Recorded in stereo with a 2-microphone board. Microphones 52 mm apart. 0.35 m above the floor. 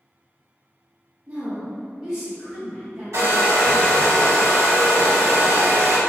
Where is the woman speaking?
30° right (ahead or behind), 1.0 m; by 3.4 s centre (ahead or behind), 1.4 m.